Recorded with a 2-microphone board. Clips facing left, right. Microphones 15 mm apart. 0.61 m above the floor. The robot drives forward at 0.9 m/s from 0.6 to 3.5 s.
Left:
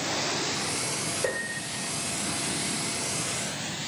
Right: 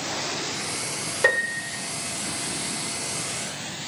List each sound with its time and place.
1.2 s a piano: 70° right (ahead or behind), 1.8 m